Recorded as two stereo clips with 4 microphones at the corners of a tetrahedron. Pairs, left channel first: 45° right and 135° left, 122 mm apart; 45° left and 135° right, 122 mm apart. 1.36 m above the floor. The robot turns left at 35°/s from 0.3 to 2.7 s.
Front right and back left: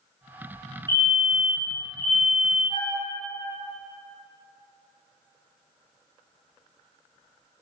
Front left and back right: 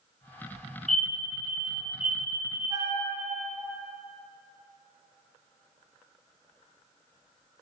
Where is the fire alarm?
35° right, 1.2 m; by 2.9 s 100° right, 1.2 m.